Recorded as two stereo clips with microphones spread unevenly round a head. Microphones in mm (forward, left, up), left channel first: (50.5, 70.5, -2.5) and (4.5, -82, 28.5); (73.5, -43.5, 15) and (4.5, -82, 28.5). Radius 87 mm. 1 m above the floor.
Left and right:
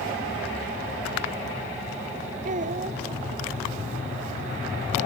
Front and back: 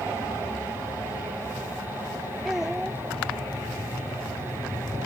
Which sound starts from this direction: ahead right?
A child speaking, at 2.5 s.